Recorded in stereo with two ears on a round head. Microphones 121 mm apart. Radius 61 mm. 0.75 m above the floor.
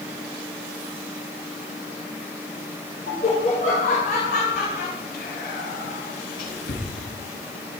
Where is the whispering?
70° left (ahead or behind), 8 m.